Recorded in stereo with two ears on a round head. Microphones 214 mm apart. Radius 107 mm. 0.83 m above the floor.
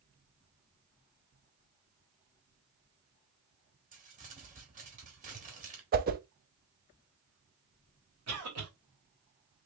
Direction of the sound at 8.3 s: 70° right (ahead or behind).